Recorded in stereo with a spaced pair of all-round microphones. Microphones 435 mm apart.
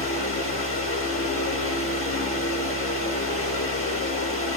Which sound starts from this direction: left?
A fan, at 0.0 s.